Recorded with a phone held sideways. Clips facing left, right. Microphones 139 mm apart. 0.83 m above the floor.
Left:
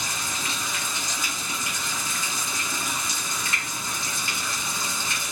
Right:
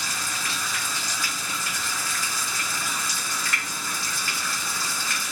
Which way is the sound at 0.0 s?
20° left (ahead or behind).